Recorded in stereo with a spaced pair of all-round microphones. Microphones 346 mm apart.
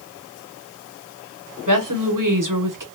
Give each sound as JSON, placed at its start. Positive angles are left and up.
{"t": 1.7, "sound": "a woman speaking", "side_deg": -65, "distance_m": 0.8}